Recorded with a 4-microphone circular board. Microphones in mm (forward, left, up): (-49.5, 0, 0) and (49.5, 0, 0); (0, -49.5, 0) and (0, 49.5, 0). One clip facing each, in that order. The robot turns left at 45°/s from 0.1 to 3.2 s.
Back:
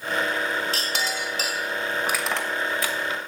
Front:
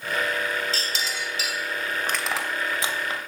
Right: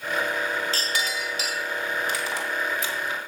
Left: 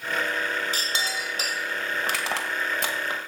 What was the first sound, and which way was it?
A clink, 165° left.